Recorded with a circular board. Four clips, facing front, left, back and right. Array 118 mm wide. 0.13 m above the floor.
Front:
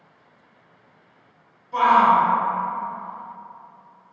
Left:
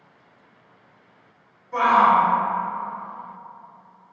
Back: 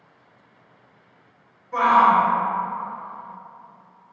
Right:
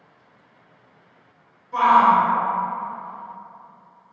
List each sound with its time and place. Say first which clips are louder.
1.7 s a shout: right 2 dB, even; 165° left, 1.6 m